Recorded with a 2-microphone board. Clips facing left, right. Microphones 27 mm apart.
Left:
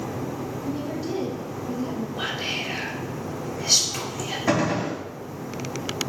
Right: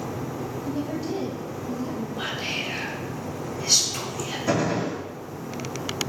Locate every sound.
0.7 s a woman speaking: 5° left (ahead or behind), 0.9 m
2.2 s whispering: 15° left (ahead or behind), 2 m
4.5 s a gunshot: 45° left (ahead or behind), 3 m